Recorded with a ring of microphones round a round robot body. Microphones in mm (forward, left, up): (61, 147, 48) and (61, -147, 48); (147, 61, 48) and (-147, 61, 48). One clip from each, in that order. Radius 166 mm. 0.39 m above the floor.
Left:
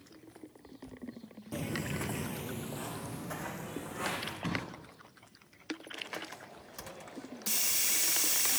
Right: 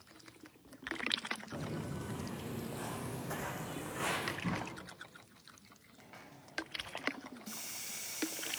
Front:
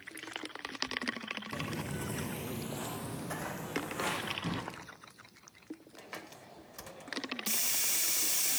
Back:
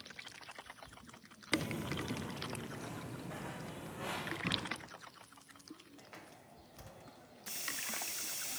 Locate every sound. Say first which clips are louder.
1.5 s footsteps: left 5 dB, back 1 dB; 105° left, 0.7 m; by 4.3 s 5° right, 2 m
4.4 s a drawer: left 3 dB, back 2 dB; 80° left, 2.0 m
6.0 s a hiss: left 13 dB, front 8 dB; 60° left, 0.5 m